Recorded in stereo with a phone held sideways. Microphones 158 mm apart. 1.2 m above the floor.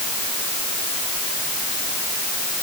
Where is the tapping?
I don't hear tapping.